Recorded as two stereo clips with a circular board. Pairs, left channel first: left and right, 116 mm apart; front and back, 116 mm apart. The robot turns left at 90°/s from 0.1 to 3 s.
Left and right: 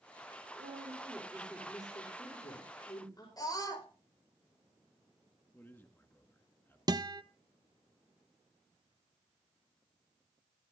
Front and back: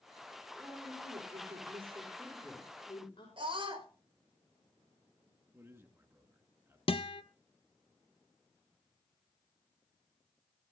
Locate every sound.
0.6 s a woman speaking: 100° right, 5.5 m; by 3.3 s 40° left, 5.5 m
3.4 s a scream: 145° left, 4.5 m
5.5 s a man speaking: 140° left, 1.7 m
6.9 s a guitar: 40° right, 0.7 m